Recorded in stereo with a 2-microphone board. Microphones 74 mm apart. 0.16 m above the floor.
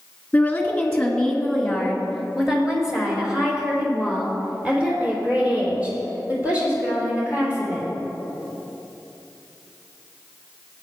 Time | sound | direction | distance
0.3 | a woman speaking | 20° left (ahead or behind) | 2.0 m